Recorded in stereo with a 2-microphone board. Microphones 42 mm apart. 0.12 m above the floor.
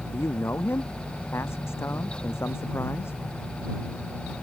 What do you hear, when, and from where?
0.1 s a man speaking: 70° left (ahead or behind); by 3.2 s 80° left